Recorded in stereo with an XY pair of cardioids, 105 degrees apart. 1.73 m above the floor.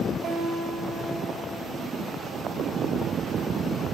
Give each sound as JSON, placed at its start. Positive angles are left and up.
{"t": 0.2, "sound": "a guitar", "azimuth_deg": -55, "distance_m": 7.0}